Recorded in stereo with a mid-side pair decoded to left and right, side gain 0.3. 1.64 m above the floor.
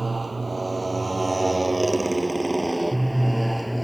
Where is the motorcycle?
35° right; by 3.8 s straight ahead.